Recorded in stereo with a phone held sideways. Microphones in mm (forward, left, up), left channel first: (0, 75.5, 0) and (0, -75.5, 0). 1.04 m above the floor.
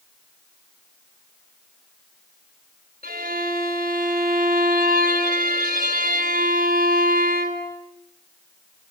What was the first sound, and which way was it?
A violin, 80° right.